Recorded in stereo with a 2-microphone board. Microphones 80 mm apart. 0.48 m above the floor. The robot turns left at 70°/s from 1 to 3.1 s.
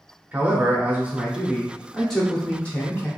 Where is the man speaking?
20° right (ahead or behind), 0.7 m; by 3.1 s 20° left (ahead or behind), 0.7 m.